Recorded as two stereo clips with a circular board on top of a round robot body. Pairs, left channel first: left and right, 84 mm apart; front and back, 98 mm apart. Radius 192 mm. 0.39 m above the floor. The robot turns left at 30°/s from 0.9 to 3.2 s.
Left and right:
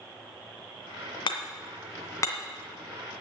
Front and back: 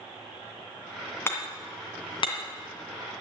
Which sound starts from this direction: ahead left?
Hammering, at 1.3 s.